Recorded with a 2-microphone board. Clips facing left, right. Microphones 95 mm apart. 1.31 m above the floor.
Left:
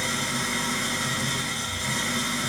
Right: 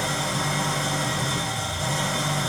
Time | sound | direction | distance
0.0 | an engine running | 60° right (ahead or behind) | 5.5 m